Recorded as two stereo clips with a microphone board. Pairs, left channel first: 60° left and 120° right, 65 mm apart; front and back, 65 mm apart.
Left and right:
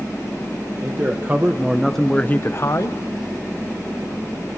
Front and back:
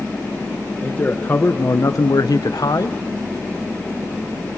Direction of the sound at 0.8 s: 70° right.